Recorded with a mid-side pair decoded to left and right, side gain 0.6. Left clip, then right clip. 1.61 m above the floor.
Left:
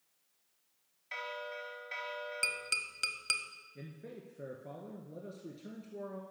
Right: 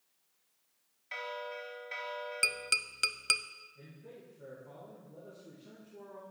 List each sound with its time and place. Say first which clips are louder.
1.1 s a bell: right 1 dB; straight ahead, 0.5 m
2.4 s tapping: right 4 dB; 20° right, 0.5 m
3.8 s a man speaking: left 3 dB; 65° left, 1.6 m